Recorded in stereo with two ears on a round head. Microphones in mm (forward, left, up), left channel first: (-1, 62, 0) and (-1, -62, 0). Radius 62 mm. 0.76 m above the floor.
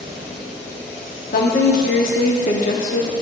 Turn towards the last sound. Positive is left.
turn(degrees=65)  # may be behind; listen again after turning